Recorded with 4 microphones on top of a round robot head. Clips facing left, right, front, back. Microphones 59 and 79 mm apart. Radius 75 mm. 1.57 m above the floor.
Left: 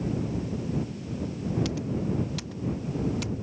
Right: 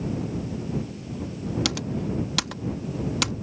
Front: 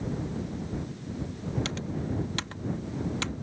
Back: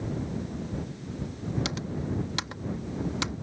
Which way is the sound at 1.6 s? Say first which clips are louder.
Right 1 dB, even; 105° right.